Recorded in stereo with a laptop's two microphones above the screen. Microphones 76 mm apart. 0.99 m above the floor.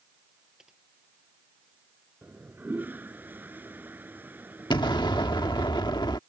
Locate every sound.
0.6 s typing on a keyboard: 5° right (ahead or behind)
2.2 s a toilet flushing: 25° right (ahead or behind)
4.7 s an explosion: 75° left (ahead or behind)